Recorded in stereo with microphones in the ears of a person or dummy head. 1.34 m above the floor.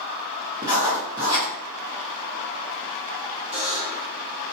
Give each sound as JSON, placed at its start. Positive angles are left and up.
{"t": 0.6, "sound": "writing", "side_deg": -15, "distance_m": 0.8}
{"t": 3.5, "sound": "a buzzer", "side_deg": -35, "distance_m": 0.8}